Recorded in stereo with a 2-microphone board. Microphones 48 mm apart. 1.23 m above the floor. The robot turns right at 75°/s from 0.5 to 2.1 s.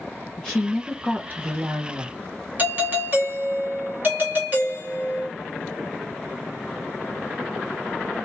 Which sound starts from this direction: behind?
A woman speaking, at 0.4 s.